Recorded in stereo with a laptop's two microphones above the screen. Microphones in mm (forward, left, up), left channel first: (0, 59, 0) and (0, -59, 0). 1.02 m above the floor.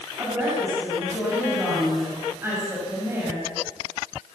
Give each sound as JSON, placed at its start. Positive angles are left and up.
{"t": 0.2, "sound": "a woman speaking", "side_deg": -20, "distance_m": 7.0}